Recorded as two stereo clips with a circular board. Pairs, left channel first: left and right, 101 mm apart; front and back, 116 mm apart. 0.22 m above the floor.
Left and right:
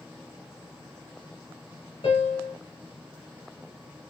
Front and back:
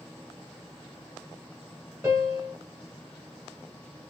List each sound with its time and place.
2.0 s a piano: 115° left, 2.5 m